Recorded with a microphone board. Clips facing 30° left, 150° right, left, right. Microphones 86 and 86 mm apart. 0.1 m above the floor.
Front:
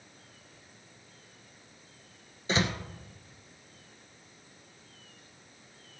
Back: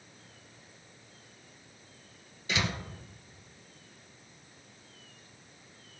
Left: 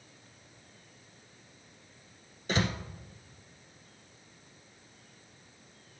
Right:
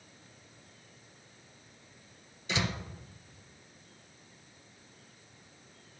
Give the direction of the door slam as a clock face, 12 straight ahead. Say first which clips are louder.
Front 3 dB, left 3 dB; 10 o'clock.